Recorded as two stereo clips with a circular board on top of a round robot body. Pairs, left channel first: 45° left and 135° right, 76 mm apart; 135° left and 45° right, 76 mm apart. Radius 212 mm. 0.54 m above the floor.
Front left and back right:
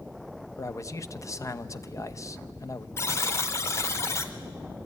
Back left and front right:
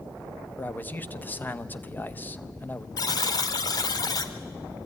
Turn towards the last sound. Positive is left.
turn(degrees=100)